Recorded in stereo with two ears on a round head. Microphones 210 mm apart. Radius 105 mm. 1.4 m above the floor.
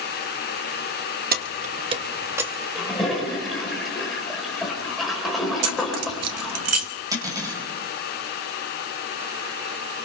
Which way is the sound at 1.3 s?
40° right (ahead or behind).